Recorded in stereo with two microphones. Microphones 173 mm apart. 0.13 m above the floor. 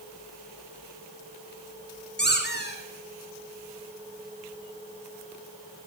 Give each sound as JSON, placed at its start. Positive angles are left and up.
{"t": 2.2, "sound": "a squeak", "side_deg": 75, "distance_m": 4.0}